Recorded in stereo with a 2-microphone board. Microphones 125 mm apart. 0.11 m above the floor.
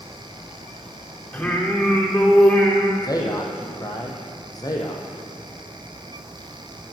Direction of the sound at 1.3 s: 15° left (ahead or behind).